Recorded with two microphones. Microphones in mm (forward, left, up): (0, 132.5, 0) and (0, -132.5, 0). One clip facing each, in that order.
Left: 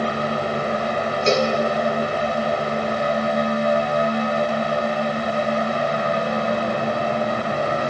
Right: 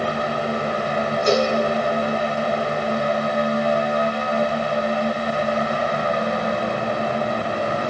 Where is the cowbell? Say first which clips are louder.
Even; 25° left (ahead or behind), 3.5 m.